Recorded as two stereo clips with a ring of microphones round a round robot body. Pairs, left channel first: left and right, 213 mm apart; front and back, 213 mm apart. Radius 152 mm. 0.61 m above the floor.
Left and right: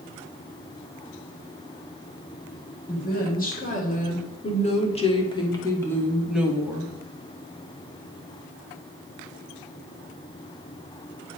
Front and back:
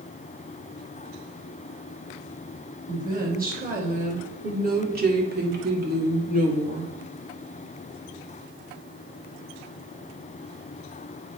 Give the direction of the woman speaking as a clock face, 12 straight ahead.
8 o'clock.